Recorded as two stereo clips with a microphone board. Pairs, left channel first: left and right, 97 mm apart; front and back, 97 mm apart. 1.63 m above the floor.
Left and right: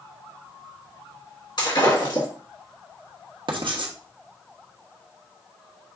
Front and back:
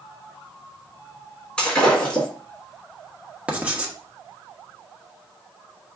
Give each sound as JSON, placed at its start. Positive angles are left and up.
{"t": 1.6, "sound": "breaking glass", "azimuth_deg": 80, "distance_m": 2.5}
{"t": 3.5, "sound": "writing", "azimuth_deg": -105, "distance_m": 1.0}